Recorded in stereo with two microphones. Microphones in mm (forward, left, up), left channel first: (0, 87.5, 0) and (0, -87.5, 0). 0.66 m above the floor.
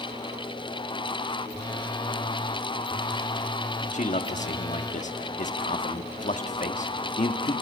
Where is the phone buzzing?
25° left (ahead or behind), 0.9 m.